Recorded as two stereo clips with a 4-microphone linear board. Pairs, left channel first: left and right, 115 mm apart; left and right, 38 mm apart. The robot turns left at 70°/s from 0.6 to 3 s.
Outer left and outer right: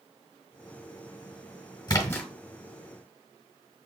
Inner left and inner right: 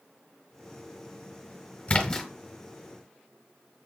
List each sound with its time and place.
1.9 s a splash: 40° left (ahead or behind), 1.2 m; by 2.3 s 15° left (ahead or behind), 1.2 m